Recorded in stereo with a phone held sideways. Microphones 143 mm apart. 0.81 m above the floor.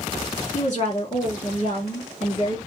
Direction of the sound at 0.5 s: 50° left (ahead or behind).